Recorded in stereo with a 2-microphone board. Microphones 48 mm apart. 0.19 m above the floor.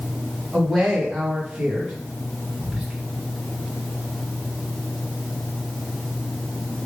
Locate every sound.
0.5 s a woman speaking: 10° right (ahead or behind), 1.4 m
2.6 s whispering: 10° right (ahead or behind), 1.3 m